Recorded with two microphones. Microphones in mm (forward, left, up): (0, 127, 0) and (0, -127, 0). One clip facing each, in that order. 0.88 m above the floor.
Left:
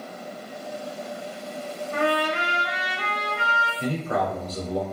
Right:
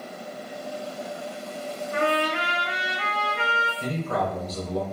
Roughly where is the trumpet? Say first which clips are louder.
Left 1 dB; right.